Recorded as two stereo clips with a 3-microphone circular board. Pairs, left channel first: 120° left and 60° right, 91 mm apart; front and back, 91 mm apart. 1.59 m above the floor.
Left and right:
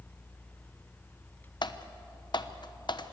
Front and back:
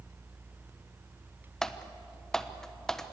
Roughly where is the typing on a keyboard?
Left.